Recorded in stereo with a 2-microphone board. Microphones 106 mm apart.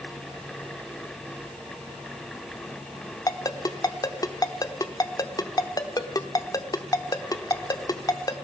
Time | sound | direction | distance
3.3 | a ringtone | 35° left (ahead or behind) | 0.9 m